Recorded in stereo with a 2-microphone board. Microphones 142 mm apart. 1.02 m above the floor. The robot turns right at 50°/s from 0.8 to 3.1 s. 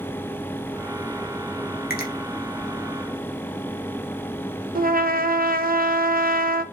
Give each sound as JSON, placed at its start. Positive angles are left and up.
{"t": 1.9, "sound": "a finger snap", "side_deg": 85, "distance_m": 1.7}
{"t": 4.8, "sound": "a trumpet", "side_deg": -75, "distance_m": 0.7}